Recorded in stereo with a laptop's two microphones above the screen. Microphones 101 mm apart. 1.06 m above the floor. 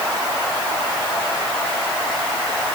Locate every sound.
Only background noise.